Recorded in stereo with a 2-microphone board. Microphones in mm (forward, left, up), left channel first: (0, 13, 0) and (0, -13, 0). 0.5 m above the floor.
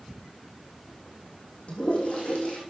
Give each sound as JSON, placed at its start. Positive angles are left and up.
{"t": 1.7, "sound": "a toilet flushing", "side_deg": 50, "distance_m": 3.5}